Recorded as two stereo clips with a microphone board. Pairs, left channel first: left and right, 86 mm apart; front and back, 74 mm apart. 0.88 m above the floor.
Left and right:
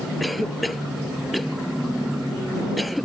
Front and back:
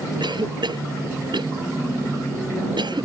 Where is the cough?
Straight behind.